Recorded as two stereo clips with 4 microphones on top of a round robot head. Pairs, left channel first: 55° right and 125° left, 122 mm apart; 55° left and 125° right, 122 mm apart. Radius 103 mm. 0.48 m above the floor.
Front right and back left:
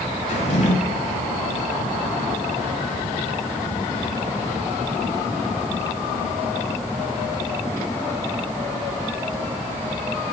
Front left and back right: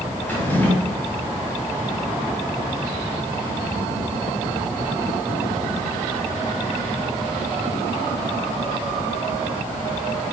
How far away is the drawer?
About 1.6 m.